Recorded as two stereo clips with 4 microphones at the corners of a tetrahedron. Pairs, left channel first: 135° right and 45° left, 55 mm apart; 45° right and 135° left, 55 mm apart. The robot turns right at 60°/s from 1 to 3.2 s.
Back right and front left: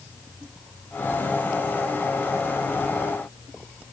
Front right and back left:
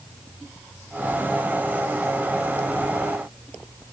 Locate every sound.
Only background noise.